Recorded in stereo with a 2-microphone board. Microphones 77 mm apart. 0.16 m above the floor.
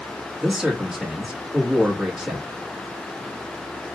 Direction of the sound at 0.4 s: 5° right (ahead or behind).